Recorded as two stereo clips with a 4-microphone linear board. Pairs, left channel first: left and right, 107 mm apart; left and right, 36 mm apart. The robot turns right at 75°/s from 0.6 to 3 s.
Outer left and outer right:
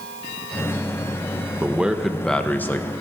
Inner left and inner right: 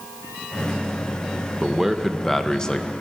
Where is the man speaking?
15° right (ahead or behind), 0.6 m; by 2.9 s 25° left (ahead or behind), 0.6 m.